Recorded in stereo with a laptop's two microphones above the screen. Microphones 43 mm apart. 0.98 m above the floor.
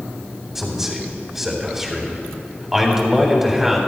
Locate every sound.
0.6 s a man speaking: 5° right (ahead or behind), 3.5 m